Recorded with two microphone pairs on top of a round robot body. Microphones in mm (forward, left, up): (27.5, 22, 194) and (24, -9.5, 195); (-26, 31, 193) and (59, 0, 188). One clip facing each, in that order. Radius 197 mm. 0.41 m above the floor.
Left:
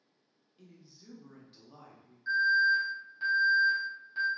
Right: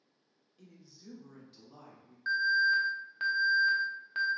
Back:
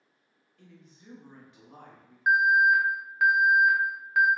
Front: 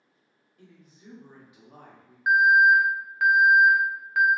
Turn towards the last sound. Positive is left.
turn(degrees=-110)